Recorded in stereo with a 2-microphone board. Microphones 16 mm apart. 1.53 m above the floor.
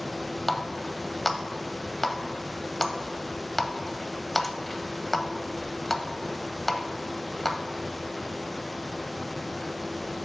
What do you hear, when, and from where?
0.5 s a running tap: 10° left (ahead or behind), 0.6 m